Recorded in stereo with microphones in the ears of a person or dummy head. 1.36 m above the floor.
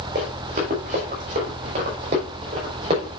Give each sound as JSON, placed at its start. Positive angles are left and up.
{"t": 0.1, "sound": "running footsteps", "side_deg": -55, "distance_m": 5.5}